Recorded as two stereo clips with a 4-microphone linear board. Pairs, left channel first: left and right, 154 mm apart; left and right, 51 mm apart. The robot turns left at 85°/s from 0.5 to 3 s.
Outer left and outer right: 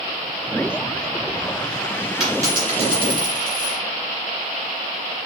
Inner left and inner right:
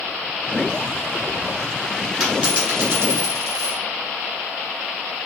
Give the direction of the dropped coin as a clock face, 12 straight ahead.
12 o'clock.